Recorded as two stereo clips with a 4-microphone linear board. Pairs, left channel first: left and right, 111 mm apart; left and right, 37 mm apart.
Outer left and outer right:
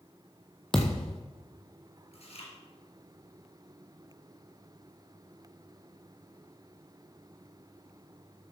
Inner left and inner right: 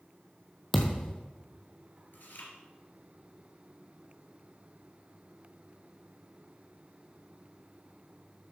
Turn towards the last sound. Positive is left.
turn(degrees=65)  # may be behind; listen again after turning